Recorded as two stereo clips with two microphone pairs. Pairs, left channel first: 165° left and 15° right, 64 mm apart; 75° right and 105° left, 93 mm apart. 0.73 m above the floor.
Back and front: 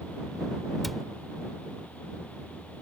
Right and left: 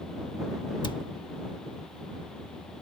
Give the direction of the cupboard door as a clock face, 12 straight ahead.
4 o'clock.